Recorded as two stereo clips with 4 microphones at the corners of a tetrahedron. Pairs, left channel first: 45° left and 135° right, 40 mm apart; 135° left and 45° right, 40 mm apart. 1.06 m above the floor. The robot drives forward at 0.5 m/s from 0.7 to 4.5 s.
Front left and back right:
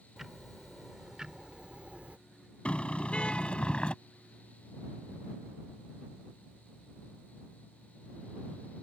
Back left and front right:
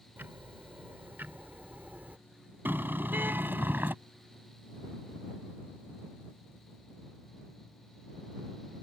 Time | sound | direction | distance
0.2 | ticking | 55° right | ?
2.6 | a car horn | 15° right | ?